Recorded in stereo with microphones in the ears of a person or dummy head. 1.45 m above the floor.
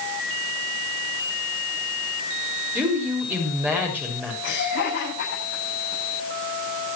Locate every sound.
2.8 s a woman speaking: 10° right (ahead or behind), 6 m
4.4 s laughter: 65° left (ahead or behind), 9 m